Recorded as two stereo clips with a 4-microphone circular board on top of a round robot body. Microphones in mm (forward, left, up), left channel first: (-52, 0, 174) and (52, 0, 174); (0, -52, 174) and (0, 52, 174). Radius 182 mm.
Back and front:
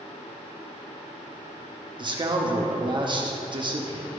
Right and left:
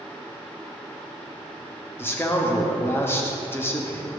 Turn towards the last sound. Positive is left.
turn(degrees=-25)